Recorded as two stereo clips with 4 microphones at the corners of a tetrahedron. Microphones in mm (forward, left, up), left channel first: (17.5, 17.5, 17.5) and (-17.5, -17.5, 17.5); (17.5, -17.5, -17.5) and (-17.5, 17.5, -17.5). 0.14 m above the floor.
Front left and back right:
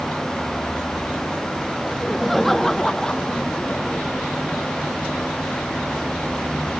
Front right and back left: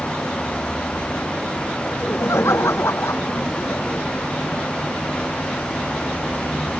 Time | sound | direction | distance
1.9 | laughter | 50° right | ?